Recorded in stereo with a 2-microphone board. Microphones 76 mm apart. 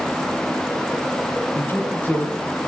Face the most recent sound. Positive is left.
turn(degrees=25)  # may be behind; listen again after turning